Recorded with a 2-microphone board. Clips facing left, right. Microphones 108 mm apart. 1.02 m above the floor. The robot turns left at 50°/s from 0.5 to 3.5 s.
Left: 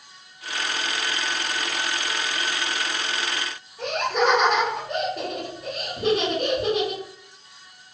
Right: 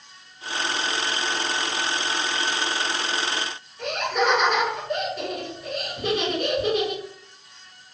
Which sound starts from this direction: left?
Laughter, at 3.8 s.